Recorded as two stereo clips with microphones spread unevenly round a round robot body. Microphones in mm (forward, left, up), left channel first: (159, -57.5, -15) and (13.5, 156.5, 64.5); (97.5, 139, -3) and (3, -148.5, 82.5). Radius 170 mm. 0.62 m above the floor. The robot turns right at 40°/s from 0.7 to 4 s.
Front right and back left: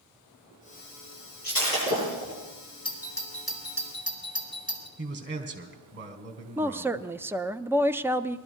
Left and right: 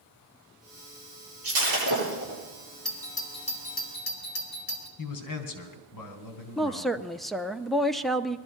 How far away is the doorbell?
About 2.5 m.